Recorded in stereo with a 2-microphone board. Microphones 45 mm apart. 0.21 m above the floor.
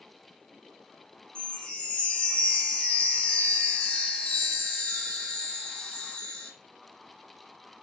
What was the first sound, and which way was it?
A chime, 25° left (ahead or behind).